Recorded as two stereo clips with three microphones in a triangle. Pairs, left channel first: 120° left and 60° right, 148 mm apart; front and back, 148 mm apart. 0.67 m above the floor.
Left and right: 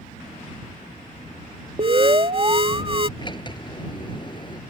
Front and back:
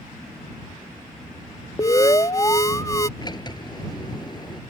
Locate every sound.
1.8 s an alarm: 50° right
3.2 s a sliding door: 60° left